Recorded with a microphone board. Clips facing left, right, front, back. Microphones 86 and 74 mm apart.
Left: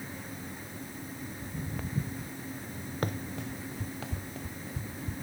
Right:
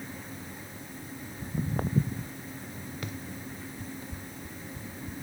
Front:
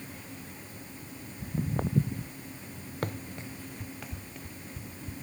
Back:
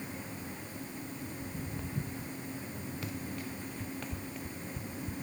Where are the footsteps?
40° right.